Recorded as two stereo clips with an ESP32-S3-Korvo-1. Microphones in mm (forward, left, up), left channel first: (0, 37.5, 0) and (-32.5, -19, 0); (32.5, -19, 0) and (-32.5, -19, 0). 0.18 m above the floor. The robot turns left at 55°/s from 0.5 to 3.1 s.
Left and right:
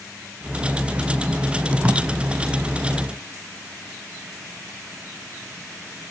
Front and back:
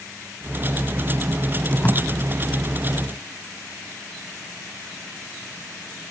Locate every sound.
1.8 s tape being pulled: 60° right, 1.2 m; by 2.0 s 70° right, 1.2 m